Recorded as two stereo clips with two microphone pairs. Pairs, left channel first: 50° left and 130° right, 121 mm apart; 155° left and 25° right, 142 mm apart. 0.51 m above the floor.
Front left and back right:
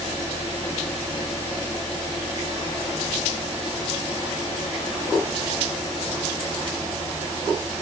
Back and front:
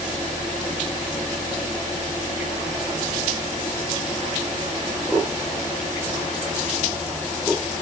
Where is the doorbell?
I don't hear a doorbell.